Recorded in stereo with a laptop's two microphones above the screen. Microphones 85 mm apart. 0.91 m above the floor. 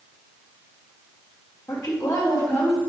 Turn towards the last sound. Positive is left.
turn(degrees=15)  # may be behind; listen again after turning